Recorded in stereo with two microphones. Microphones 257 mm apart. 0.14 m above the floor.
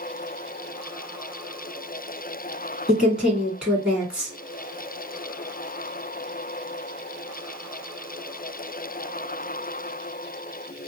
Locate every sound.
2.9 s a woman speaking: 5° right (ahead or behind), 1.6 m